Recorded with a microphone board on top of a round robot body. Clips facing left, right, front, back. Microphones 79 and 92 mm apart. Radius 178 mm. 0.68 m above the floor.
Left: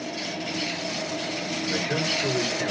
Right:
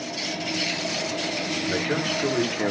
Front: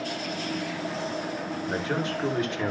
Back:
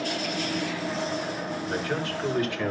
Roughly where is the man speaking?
Right.